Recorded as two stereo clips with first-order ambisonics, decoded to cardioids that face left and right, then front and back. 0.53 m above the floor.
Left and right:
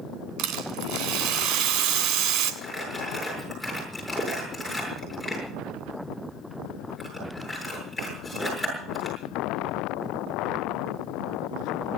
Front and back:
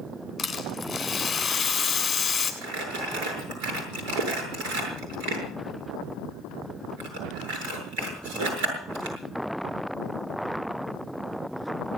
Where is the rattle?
75° right, 3 m.